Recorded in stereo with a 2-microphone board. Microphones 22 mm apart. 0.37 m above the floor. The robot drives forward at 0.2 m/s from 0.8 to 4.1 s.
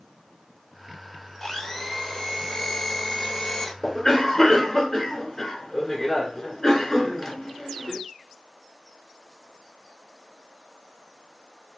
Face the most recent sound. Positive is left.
turn(degrees=15)  # may be behind; listen again after turning